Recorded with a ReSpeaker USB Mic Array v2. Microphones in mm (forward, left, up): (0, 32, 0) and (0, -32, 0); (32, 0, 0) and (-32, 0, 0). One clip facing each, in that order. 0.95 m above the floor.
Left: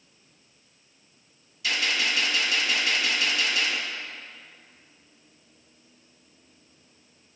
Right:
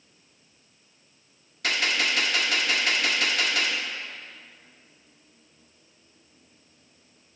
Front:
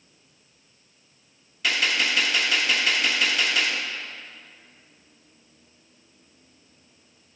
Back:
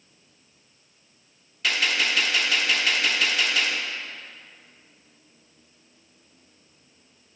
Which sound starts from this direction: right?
A gunshot, at 1.6 s.